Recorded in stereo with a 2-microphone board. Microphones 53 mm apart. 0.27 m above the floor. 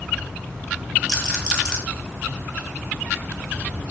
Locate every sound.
1.1 s a rattle: 10° right (ahead or behind), 1.3 m